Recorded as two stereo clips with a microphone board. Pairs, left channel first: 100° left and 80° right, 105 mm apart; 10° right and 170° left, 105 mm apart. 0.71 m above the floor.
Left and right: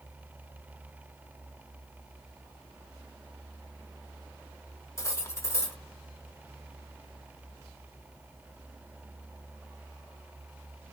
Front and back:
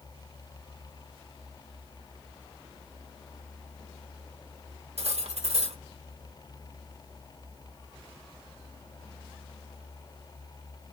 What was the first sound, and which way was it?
Cutlery clinking, 165° left.